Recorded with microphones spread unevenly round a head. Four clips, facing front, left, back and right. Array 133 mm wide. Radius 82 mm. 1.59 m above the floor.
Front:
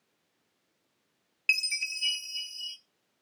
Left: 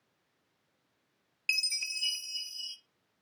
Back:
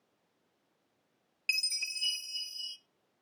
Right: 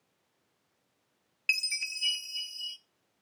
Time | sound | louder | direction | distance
1.5 | a chime | right 3 dB, front 6 dB | 175° left | 0.6 m